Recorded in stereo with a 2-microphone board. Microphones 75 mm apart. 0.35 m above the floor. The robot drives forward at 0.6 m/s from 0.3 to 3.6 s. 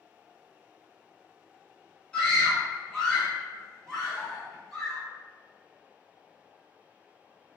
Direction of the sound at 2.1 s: 15° left (ahead or behind).